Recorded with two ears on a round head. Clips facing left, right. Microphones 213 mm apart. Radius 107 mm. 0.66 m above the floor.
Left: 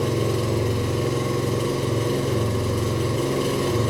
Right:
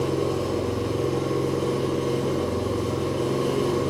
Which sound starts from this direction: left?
An engine running, at 0.0 s.